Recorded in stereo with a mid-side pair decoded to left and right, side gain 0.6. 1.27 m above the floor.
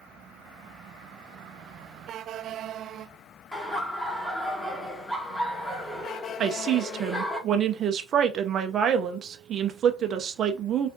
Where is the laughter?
10° left, 2 m.